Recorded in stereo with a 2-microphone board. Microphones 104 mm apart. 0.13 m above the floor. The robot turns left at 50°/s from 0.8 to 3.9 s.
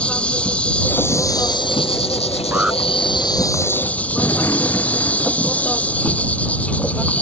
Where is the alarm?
15° right (ahead or behind); by 2.8 s centre (ahead or behind).